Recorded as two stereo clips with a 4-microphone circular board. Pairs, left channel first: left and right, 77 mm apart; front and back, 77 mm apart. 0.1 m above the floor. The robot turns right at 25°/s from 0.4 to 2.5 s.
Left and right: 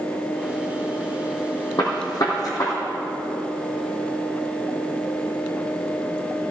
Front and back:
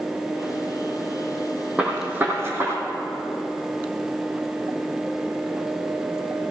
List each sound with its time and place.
1.8 s a gunshot: 105° left, 3 m; by 2.8 s 125° left, 3 m